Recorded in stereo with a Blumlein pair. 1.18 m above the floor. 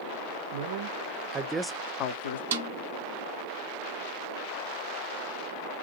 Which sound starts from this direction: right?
A snare drum, at 2.5 s.